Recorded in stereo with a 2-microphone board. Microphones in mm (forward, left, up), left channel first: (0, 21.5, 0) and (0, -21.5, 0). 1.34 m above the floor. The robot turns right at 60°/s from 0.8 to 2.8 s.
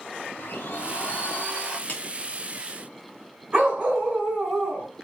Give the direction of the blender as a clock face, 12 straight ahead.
8 o'clock.